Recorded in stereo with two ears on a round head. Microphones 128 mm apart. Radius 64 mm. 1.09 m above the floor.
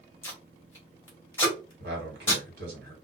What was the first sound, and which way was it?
Tape being pulled, 15° left (ahead or behind).